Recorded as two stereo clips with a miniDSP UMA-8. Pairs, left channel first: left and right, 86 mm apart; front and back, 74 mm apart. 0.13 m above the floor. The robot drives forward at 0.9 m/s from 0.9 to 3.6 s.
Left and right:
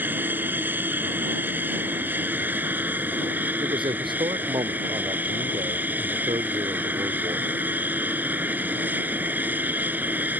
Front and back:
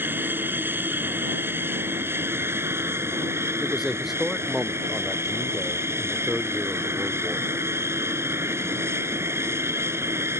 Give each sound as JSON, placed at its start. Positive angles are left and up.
{"t": 0.0, "sound": "an aircraft", "azimuth_deg": -140}
{"t": 3.6, "sound": "a man speaking", "azimuth_deg": -95}